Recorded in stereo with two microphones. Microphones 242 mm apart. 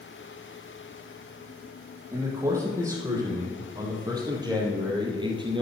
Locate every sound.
2.1 s a man speaking: 15° right (ahead or behind), 5 m; by 5.6 s 20° right (ahead or behind), 3.5 m